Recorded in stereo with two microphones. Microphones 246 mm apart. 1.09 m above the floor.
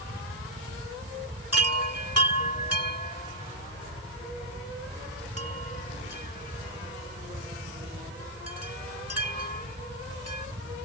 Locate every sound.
1.5 s a chime: 85° right